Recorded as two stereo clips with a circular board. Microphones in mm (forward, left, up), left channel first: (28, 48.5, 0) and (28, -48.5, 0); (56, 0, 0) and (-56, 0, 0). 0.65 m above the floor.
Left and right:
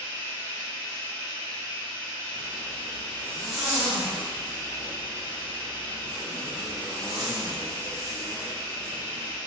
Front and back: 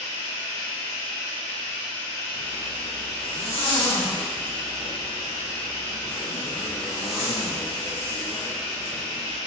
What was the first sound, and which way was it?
Running water, 35° right.